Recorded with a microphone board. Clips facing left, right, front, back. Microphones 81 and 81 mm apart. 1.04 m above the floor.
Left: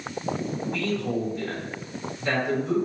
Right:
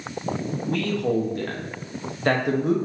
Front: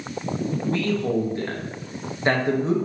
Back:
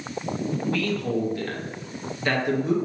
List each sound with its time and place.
0.7 s a man speaking: 60° right, 0.7 m